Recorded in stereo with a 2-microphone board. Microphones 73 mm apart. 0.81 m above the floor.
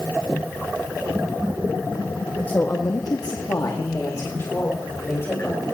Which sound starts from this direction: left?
A woman speaking, at 2.5 s.